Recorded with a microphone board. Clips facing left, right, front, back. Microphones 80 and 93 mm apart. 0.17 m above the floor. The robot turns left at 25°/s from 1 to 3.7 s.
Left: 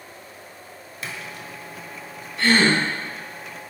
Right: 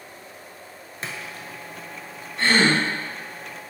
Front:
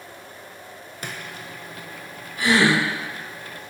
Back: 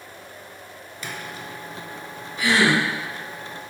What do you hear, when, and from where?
1.0 s a splash: 35° right, 0.5 m; by 1.5 s 45° right, 0.5 m
2.4 s a gasp: 40° right, 1.3 m; by 2.8 s 50° right, 1.3 m